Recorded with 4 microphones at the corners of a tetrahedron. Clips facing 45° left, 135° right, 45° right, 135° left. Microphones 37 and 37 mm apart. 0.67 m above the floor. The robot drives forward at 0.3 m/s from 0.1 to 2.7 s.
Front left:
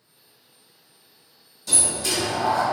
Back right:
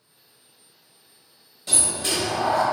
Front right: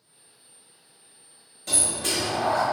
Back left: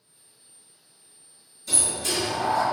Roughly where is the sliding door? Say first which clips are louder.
Even, even; right.